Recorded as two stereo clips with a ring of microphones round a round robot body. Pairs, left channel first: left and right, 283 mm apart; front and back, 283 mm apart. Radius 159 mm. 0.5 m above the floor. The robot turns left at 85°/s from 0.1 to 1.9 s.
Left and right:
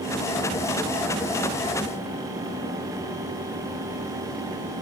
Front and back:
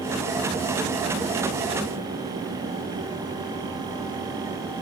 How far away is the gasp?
I don't hear a gasp.